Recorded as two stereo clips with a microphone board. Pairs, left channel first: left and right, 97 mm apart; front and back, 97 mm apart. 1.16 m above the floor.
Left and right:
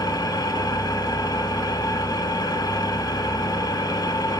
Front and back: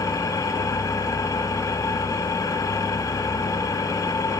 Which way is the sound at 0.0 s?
50° left.